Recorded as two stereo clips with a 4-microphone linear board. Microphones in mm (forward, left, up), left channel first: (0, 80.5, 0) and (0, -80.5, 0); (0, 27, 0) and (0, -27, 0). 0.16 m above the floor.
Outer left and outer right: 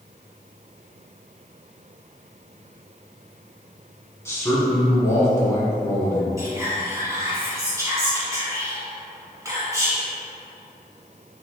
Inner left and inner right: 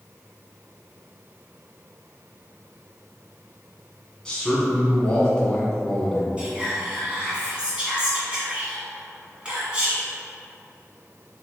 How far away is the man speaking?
About 1.2 m.